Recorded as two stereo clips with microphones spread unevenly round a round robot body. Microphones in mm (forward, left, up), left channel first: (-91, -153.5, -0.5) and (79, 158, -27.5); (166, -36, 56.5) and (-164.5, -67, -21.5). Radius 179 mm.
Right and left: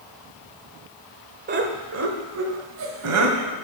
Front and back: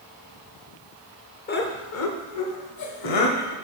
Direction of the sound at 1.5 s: 70° left.